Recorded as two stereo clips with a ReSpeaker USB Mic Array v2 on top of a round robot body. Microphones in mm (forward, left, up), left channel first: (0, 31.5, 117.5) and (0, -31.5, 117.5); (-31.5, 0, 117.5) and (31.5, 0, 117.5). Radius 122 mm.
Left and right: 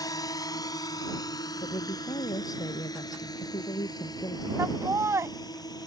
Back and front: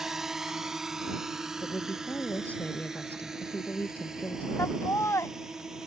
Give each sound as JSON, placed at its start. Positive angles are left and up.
{"t": 0.0, "sound": "a drone", "azimuth_deg": 85}
{"t": 1.6, "sound": "a woman speaking", "azimuth_deg": 115}
{"t": 4.6, "sound": "laughter", "azimuth_deg": -135}